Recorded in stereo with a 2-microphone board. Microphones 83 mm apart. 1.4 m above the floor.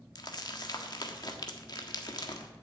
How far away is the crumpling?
About 1.6 m.